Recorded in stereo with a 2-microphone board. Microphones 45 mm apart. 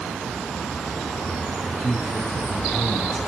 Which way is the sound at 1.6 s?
Centre (ahead or behind).